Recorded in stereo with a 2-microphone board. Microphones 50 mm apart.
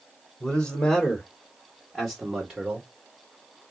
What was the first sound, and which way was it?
A man speaking, 25° left (ahead or behind).